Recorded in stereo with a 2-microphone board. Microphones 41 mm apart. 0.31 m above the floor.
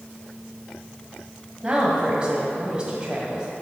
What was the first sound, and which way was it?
A woman speaking, 25° right (ahead or behind).